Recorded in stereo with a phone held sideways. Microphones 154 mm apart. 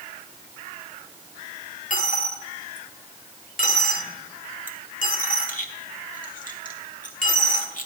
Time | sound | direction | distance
1.9 | a dropped coin | 60° left (ahead or behind) | 1.2 m